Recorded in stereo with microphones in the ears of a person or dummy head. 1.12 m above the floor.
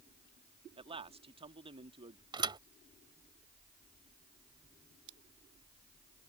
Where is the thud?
30° right (ahead or behind).